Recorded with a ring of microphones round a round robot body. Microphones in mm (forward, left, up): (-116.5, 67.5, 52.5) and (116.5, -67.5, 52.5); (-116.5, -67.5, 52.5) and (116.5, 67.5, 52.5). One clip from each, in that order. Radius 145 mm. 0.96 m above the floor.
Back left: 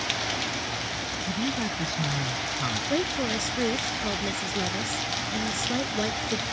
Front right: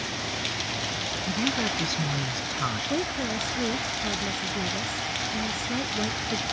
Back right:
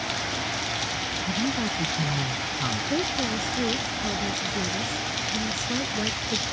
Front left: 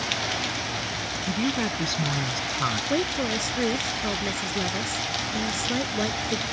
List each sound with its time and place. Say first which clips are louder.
1.3 s a woman speaking: front right 4 dB, front left 3 dB; 40° left
2.9 s a woman speaking: back left 2 dB, front left 1 dB; 90° left